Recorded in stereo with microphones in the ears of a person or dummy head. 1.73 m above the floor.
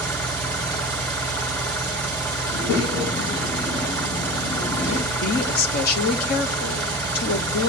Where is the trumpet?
I don't hear a trumpet.